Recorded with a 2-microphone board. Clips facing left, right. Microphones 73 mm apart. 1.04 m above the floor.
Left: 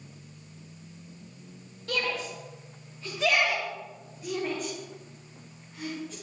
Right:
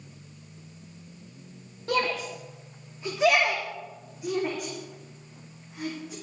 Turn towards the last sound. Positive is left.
turn(degrees=-10)  # may be behind; listen again after turning